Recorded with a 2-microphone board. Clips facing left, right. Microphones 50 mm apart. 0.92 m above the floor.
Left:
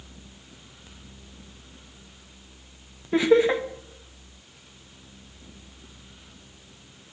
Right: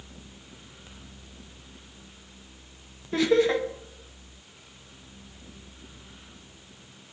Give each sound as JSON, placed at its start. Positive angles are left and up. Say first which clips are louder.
{"t": 3.1, "sound": "laughter", "louder": "left 3 dB", "side_deg": 20, "distance_m": 0.8}